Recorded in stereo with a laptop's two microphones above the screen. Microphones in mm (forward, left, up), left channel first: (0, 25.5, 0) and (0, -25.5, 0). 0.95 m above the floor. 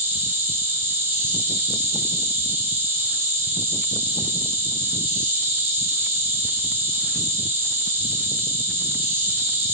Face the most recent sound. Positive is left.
turn(degrees=-40)  # may be behind; listen again after turning